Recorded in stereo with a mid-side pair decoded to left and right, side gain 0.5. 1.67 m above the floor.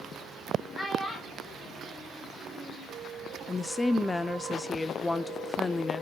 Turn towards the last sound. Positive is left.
turn(degrees=25)